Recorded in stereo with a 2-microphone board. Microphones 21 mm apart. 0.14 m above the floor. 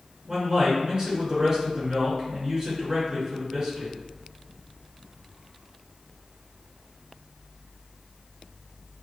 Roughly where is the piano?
No piano in this recording.